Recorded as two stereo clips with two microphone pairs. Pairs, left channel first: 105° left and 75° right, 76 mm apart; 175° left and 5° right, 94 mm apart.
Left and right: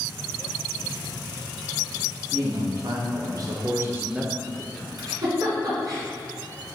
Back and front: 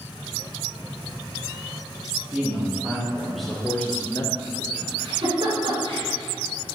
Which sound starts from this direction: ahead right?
A giggle, at 5.0 s.